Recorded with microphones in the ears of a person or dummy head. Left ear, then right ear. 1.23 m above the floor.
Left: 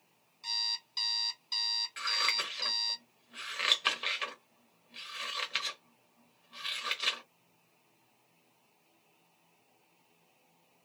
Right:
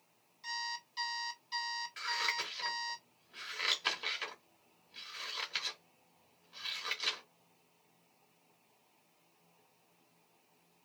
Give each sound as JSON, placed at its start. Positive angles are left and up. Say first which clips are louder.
{"t": 0.4, "sound": "an alarm clock", "louder": "left 6 dB", "side_deg": 20, "distance_m": 1.5}
{"t": 2.0, "sound": "scissors", "louder": "left 3 dB", "side_deg": 10, "distance_m": 1.0}